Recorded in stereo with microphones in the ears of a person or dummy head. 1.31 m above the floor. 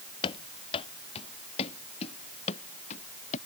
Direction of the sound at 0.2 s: 30° left (ahead or behind).